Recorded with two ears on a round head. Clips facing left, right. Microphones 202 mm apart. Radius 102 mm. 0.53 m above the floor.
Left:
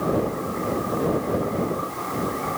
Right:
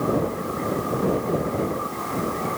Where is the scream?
I don't hear a scream.